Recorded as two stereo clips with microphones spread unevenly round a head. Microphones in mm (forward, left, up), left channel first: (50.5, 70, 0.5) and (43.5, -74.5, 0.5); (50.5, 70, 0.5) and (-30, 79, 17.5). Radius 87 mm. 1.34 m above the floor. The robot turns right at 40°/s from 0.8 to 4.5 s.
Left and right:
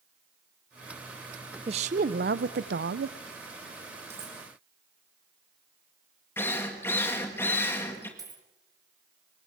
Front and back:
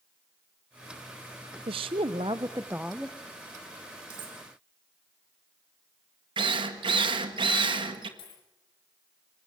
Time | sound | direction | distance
1.7 | a woman speaking | 150° right | 0.7 m
4.1 | cutlery clinking | 170° right | 2.5 m
6.4 | a drill | 165° left | 1.7 m
8.2 | a dropped coin | 30° right | 3.5 m